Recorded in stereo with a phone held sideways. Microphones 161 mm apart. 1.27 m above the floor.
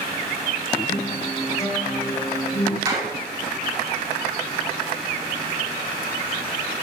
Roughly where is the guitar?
Centre.